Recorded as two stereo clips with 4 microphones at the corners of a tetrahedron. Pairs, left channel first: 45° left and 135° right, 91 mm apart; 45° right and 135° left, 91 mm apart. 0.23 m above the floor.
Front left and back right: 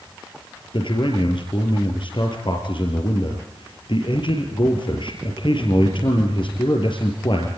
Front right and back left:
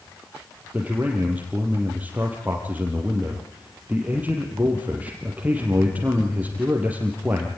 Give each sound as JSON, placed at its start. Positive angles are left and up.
{"t": 0.7, "sound": "a man speaking", "azimuth_deg": 65, "distance_m": 5.5}